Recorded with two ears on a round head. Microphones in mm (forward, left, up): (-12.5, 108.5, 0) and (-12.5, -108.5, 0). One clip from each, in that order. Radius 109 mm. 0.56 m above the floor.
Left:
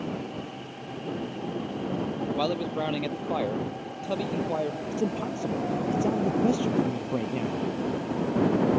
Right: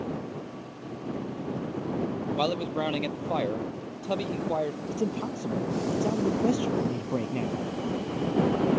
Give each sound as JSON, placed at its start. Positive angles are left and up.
{"t": 2.4, "sound": "a man speaking", "side_deg": -10}
{"t": 4.9, "sound": "a man speaking", "side_deg": 0}